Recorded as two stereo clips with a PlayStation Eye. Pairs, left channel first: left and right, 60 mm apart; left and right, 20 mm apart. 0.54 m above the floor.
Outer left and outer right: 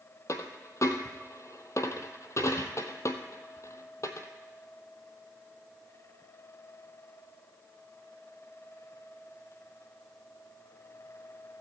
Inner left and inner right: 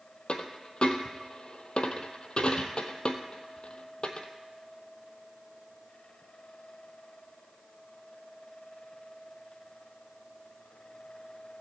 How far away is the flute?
I don't hear a flute.